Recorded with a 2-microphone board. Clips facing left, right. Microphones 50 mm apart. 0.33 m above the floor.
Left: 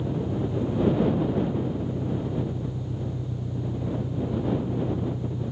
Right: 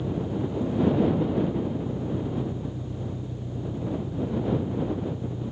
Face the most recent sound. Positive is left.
turn(degrees=65)  # may be behind; listen again after turning